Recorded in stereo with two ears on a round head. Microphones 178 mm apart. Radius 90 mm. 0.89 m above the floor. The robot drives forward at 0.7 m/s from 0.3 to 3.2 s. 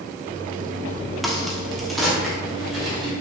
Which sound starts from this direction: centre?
A crack, at 1.2 s.